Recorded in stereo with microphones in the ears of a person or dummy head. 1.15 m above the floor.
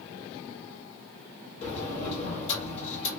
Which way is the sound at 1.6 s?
45° left (ahead or behind).